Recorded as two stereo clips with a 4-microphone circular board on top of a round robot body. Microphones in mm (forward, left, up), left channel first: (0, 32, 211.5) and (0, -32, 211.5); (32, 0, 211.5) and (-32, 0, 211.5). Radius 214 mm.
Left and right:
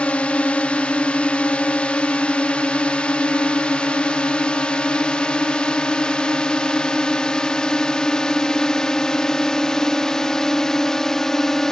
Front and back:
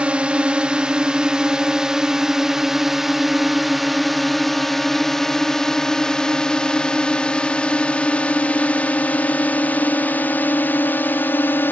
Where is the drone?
135° left; by 11.7 s 15° left.